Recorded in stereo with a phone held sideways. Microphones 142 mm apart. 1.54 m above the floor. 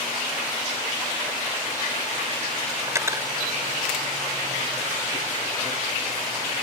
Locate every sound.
2.9 s cutlery clinking: 20° right (ahead or behind)